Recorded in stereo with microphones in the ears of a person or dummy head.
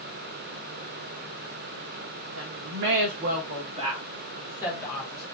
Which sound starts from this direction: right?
A woman speaking, at 2.4 s.